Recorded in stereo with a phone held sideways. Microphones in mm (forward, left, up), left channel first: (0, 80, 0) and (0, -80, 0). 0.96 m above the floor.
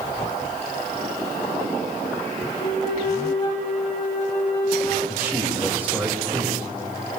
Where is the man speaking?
10° right (ahead or behind), 3.5 m.